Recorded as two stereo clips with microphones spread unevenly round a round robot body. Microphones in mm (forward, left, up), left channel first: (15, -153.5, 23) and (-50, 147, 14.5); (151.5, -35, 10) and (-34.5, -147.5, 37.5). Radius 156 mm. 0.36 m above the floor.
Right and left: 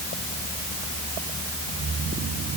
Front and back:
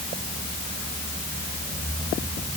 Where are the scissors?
I don't hear scissors.